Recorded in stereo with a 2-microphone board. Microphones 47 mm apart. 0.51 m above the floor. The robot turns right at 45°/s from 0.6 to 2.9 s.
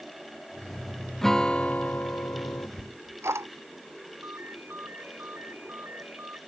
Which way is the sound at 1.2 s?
5° left.